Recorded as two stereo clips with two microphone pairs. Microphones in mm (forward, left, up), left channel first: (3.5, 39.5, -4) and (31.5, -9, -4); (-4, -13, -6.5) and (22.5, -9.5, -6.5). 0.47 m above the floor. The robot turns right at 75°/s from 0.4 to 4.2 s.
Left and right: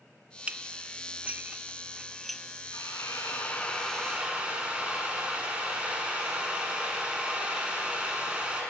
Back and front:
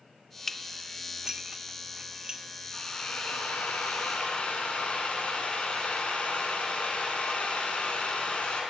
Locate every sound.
0.5 s dishes clattering: 100° right, 0.6 m; by 3.1 s 100° left, 0.6 m
2.7 s a drill: 120° left, 5.5 m; by 8.6 s 130° right, 5.5 m